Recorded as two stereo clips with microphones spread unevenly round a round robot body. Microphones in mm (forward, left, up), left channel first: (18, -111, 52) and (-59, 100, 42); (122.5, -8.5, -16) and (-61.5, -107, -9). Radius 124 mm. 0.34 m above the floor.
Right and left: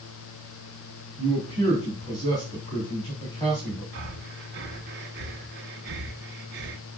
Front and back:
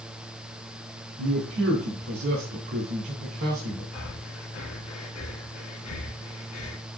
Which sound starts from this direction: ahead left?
Breathing, at 3.9 s.